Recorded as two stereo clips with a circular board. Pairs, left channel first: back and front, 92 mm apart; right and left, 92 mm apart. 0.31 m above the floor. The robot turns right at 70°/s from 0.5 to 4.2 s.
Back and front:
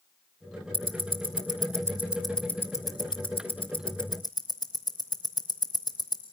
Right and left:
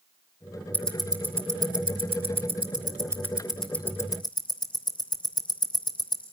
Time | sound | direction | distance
0.7 | ticking | 15° right | 3 m